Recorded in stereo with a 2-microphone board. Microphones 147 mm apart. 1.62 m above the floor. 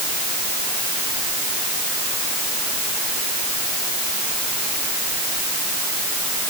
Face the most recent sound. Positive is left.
No sound to turn to.